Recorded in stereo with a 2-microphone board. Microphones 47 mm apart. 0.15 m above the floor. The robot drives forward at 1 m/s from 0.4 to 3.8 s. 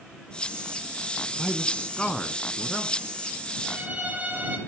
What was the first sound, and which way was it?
A man speaking, 25° left (ahead or behind).